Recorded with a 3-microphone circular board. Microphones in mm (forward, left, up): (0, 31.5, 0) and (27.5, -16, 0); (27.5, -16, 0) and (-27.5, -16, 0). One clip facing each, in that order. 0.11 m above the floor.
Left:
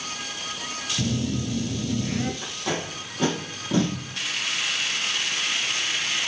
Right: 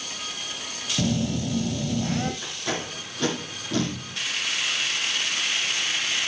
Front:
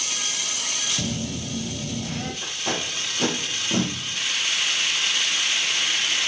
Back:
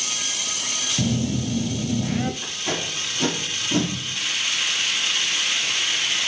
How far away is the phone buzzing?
About 1.4 m.